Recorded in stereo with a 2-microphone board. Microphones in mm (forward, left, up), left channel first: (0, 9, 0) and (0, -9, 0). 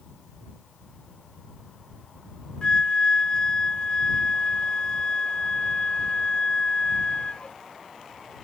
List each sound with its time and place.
2.6 s a flute: 50° left (ahead or behind)